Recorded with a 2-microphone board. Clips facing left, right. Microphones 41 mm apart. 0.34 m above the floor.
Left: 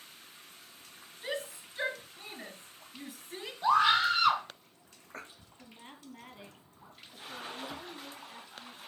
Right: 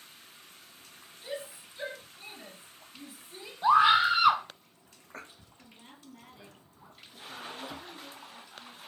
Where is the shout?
75° left (ahead or behind), 4 m.